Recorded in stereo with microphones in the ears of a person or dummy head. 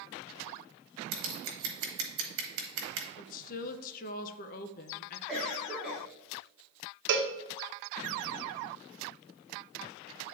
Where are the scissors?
65° right (ahead or behind), 1.1 m.